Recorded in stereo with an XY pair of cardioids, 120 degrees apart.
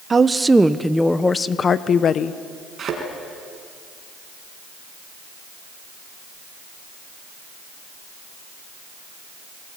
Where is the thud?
40° right, 5.5 m.